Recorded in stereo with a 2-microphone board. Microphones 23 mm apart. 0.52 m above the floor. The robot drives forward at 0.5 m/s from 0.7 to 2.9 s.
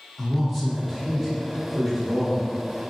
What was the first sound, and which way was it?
A man speaking, 5° left (ahead or behind).